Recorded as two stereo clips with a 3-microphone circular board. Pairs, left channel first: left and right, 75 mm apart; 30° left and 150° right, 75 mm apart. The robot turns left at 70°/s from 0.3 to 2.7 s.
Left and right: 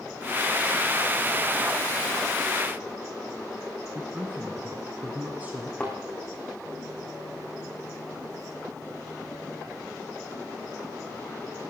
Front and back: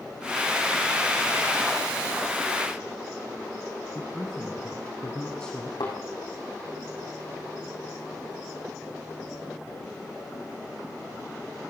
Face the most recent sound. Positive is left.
turn(degrees=15)